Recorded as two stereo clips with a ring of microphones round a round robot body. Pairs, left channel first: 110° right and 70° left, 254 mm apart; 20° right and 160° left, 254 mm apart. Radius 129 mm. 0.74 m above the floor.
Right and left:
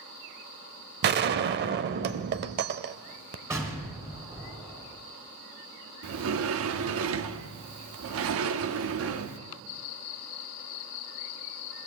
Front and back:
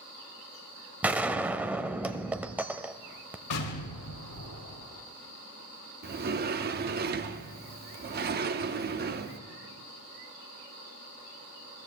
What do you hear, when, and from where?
1.0 s a gunshot: 75° left, 0.6 m
3.5 s an explosion: 10° right, 3.5 m
6.0 s a sliding door: 105° left, 0.8 m